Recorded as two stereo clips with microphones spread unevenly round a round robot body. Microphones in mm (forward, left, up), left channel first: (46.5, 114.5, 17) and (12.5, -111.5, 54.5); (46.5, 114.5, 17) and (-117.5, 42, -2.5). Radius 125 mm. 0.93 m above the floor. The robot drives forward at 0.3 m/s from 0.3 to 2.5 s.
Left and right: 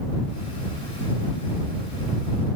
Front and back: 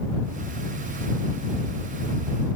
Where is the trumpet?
I don't hear a trumpet.